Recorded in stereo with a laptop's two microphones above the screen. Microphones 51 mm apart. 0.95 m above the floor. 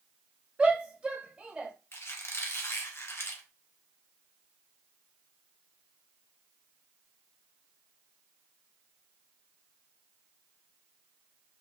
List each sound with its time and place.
0.6 s a shout: 25° right (ahead or behind), 1.1 m
1.9 s a squeak: 50° left (ahead or behind), 1.3 m